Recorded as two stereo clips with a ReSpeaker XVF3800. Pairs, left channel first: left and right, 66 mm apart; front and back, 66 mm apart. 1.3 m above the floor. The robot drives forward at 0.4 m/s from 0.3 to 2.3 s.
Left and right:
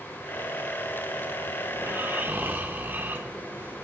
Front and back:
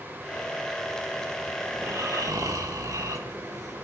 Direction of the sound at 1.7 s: 140° right.